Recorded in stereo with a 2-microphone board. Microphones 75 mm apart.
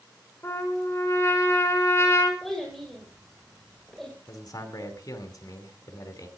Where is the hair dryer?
I don't hear a hair dryer.